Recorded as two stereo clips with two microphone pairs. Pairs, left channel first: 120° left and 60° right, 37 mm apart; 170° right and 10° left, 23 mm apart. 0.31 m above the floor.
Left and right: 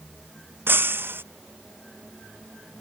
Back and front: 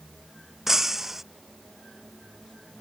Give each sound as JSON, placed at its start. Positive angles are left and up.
{"t": 0.7, "sound": "breaking glass", "azimuth_deg": -60}